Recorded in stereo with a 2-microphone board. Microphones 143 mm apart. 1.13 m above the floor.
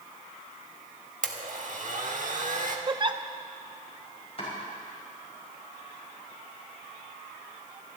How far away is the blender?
About 1.3 m.